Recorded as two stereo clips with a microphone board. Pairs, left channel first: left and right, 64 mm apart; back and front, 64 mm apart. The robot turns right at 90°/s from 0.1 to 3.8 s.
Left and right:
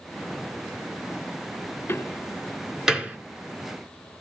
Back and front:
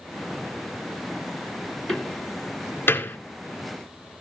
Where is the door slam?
105° left, 1.5 m; by 3.2 s 140° right, 1.5 m.